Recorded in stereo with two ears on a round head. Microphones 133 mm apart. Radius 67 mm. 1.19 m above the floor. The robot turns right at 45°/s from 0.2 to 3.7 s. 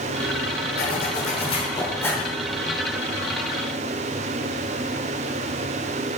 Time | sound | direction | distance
0.8 | a zipper | 105° left | 3 m